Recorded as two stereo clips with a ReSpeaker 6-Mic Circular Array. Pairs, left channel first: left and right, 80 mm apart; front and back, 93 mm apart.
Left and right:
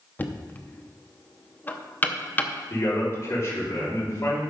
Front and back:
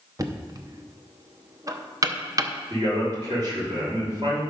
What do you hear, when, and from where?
0.2 s knocking: 145° left, 0.7 m
2.7 s a man speaking: 140° left, 5 m